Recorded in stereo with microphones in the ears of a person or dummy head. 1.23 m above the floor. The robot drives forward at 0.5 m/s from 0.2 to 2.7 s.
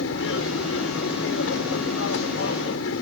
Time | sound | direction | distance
0.0 | an aircraft | 75° left (ahead or behind) | ?